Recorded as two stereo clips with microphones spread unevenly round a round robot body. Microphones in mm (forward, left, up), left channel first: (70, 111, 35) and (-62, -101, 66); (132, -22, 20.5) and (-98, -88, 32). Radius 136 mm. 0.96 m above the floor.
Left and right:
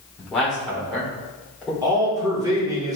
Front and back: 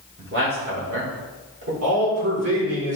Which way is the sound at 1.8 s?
160° left.